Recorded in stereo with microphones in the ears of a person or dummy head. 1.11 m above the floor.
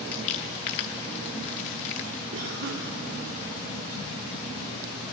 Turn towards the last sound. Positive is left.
turn(degrees=-65)  # may be behind; listen again after turning